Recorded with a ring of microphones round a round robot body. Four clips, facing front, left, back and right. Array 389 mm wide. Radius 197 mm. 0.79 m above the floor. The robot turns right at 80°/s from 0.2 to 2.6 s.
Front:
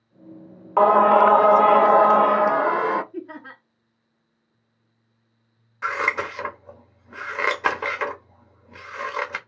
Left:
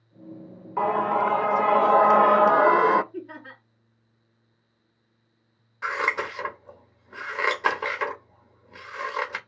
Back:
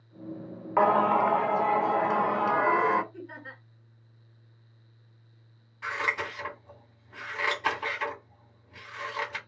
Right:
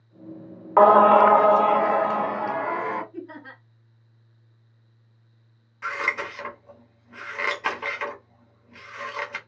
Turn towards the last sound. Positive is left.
turn(degrees=20)